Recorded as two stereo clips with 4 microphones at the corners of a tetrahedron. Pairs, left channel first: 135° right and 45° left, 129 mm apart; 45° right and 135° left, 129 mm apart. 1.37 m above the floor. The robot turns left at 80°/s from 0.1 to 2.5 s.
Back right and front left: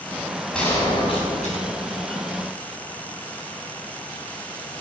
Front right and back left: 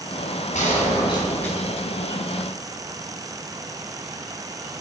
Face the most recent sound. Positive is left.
turn(degrees=150)